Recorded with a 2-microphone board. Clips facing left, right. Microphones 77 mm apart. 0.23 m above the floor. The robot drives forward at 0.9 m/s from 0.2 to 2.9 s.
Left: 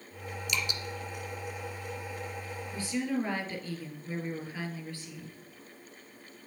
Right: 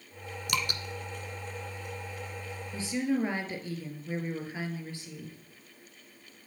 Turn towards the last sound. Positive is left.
turn(degrees=-20)  # may be behind; listen again after turning